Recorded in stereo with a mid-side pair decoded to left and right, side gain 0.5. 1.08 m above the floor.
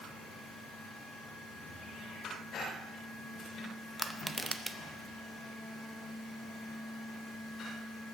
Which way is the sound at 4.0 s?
15° right.